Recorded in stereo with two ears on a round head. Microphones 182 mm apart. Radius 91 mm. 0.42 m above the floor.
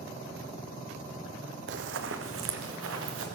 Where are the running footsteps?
60° right (ahead or behind), 0.8 m; by 3.2 s 75° right (ahead or behind), 2 m.